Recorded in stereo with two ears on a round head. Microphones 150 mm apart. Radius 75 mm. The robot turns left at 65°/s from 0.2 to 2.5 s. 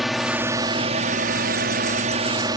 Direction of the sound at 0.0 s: Straight ahead.